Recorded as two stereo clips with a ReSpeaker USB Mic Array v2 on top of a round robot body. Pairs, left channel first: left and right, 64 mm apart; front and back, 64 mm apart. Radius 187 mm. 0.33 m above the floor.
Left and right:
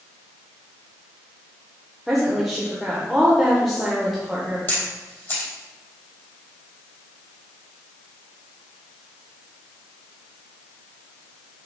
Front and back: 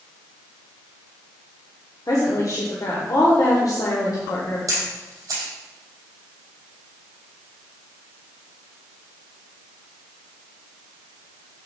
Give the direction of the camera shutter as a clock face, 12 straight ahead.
7 o'clock.